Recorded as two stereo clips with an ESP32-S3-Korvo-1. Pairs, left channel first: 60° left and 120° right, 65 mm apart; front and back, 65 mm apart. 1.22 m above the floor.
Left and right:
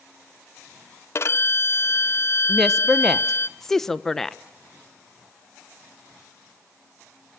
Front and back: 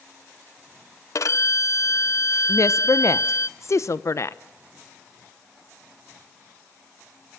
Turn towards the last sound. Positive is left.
turn(degrees=-20)